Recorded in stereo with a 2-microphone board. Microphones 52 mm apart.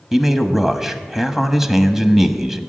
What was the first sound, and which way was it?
A man speaking, 10° right (ahead or behind).